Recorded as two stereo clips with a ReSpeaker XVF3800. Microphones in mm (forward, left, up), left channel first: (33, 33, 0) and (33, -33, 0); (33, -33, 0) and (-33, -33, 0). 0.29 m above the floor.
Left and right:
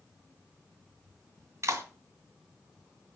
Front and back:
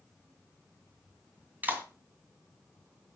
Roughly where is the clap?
Behind right.